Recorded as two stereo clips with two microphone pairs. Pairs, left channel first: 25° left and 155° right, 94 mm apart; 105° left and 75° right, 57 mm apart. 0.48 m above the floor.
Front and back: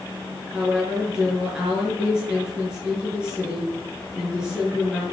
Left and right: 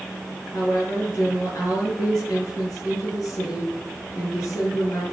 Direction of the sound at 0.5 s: 120° left.